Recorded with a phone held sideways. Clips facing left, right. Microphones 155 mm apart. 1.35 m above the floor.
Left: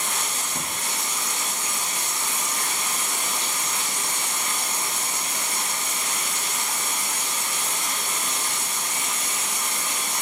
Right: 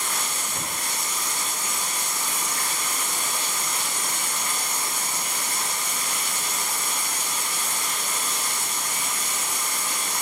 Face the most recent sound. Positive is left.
turn(degrees=20)  # may be behind; listen again after turning